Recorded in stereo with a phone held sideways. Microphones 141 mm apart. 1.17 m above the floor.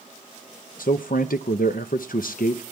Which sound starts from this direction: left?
A man speaking, at 0.8 s.